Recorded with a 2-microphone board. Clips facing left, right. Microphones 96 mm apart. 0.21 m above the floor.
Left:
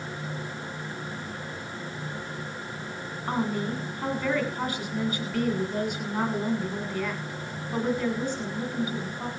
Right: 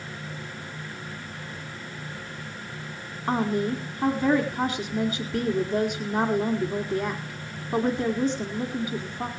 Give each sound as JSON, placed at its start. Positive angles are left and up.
{"t": 3.3, "sound": "a woman speaking", "side_deg": -25, "distance_m": 1.7}